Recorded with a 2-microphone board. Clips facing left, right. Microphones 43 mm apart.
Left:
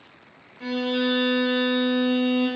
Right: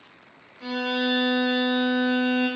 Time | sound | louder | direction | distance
0.6 | a violin | left 1 dB | 45° left (ahead or behind) | 0.9 m